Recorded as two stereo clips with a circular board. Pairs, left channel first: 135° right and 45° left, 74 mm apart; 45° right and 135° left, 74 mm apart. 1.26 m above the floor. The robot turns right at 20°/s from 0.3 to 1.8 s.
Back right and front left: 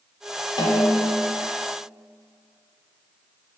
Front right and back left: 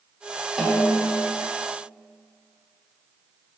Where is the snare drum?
140° right, 0.5 m; by 1.3 s 125° right, 0.5 m.